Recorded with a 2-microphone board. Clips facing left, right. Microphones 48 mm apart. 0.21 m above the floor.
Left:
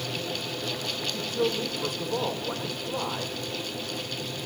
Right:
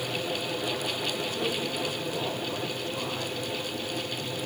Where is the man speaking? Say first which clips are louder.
Left 2 dB; 60° left (ahead or behind), 8.5 m.